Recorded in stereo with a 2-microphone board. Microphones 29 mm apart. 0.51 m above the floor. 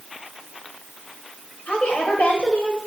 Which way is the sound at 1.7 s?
55° left (ahead or behind).